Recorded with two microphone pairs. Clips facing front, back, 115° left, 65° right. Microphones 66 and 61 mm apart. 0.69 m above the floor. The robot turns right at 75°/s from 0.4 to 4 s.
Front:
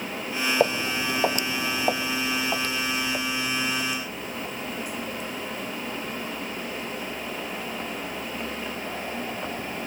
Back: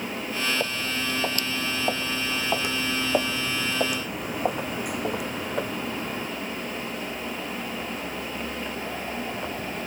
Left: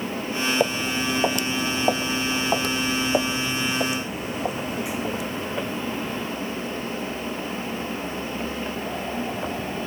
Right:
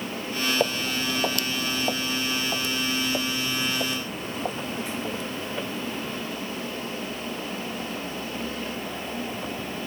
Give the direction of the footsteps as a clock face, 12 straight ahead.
11 o'clock.